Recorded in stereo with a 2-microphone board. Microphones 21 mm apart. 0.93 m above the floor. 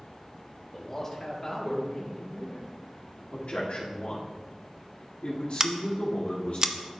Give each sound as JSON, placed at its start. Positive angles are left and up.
{"t": 0.7, "sound": "a man speaking", "side_deg": 20, "distance_m": 1.3}
{"t": 3.3, "sound": "a man speaking", "side_deg": 75, "distance_m": 1.6}
{"t": 5.6, "sound": "scissors", "side_deg": -25, "distance_m": 0.5}